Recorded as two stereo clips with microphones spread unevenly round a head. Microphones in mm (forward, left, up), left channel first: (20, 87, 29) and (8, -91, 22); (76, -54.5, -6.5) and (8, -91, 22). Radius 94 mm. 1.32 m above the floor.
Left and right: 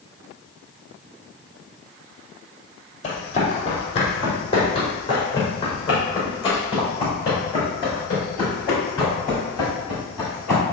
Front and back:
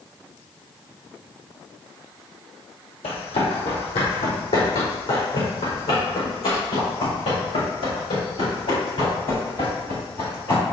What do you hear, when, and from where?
3.0 s running footsteps: 35° left, 3 m; by 10.6 s 15° left, 11 m